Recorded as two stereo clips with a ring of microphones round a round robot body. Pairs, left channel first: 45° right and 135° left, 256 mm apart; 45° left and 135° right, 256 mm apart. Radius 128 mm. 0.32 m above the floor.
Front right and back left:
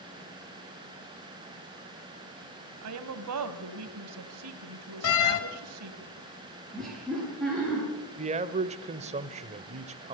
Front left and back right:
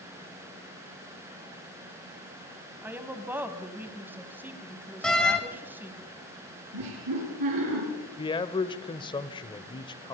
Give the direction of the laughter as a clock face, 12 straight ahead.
4 o'clock.